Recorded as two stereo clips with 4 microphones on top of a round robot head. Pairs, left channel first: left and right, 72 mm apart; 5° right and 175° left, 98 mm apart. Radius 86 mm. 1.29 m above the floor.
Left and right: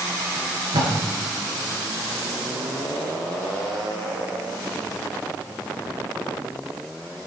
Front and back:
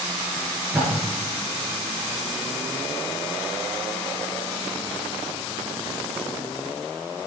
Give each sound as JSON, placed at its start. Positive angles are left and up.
{"t": 0.4, "sound": "tape being pulled", "azimuth_deg": -105, "distance_m": 7.0}